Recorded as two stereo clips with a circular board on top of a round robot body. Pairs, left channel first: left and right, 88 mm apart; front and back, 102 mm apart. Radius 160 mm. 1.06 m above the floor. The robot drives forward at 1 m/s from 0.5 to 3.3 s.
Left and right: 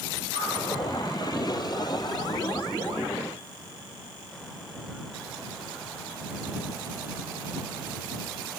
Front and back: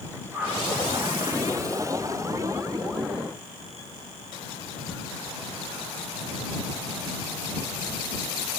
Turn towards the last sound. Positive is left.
turn(degrees=-120)